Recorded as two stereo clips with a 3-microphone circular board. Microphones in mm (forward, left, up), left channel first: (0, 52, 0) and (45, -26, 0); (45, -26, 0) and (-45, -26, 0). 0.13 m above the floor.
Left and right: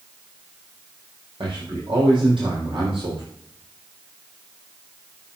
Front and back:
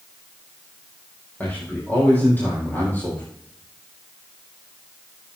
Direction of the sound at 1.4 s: 70° right.